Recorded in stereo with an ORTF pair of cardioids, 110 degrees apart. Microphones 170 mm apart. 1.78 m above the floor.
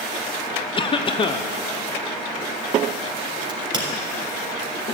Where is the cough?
30° left, 1.0 m.